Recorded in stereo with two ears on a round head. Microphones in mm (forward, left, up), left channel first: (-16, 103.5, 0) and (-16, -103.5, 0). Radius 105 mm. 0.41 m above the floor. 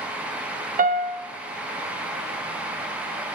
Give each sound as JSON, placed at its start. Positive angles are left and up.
{"t": 0.8, "sound": "a piano", "side_deg": -35, "distance_m": 1.1}